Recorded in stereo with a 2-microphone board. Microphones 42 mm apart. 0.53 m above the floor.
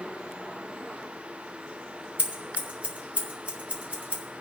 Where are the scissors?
45° right (ahead or behind), 3 m.